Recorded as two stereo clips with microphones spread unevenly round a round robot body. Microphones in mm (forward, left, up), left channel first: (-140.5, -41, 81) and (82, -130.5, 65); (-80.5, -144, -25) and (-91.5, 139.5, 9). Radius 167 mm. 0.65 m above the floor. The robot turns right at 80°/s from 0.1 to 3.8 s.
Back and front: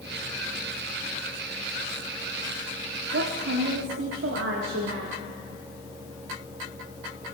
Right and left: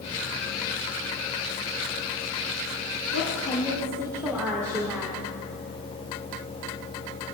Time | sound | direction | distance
3.1 | a woman speaking | 45° right | 1.3 m